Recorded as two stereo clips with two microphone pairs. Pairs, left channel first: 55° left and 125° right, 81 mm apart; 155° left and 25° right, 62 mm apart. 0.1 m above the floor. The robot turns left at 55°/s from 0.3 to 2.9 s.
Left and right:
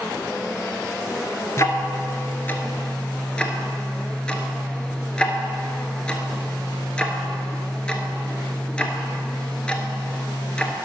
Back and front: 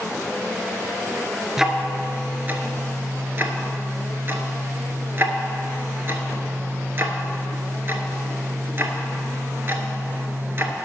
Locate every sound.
1.6 s ticking: 60° left, 0.8 m; by 10.7 s 15° right, 0.8 m